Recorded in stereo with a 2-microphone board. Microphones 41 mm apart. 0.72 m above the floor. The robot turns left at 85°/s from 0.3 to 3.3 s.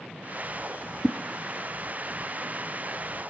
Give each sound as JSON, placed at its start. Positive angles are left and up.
{"t": 1.0, "sound": "a whoosh", "side_deg": 0, "distance_m": 0.5}